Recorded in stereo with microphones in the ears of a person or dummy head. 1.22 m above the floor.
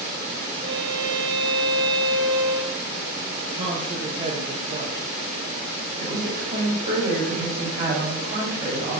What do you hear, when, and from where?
0.6 s a violin: 25° right (ahead or behind), 1.7 m
3.5 s a man speaking: 35° right (ahead or behind), 1.1 m
6.0 s a woman speaking: 50° right (ahead or behind), 5 m